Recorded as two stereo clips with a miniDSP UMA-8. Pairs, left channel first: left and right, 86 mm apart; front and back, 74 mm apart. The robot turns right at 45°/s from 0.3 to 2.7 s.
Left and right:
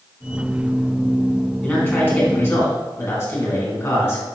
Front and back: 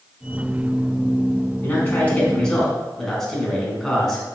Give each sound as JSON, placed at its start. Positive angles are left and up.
{"t": 1.6, "sound": "a man speaking", "azimuth_deg": 30, "distance_m": 1.3}